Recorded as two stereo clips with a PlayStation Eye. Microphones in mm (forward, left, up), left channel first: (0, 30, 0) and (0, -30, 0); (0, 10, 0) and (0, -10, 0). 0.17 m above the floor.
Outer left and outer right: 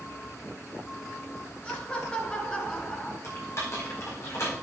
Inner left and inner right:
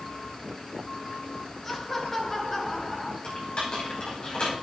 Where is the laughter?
20° left (ahead or behind), 3 m; by 3.1 s 10° left (ahead or behind), 1.5 m.